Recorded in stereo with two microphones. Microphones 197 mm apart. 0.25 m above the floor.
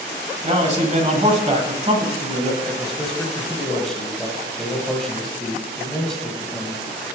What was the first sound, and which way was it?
A man speaking, 35° right (ahead or behind).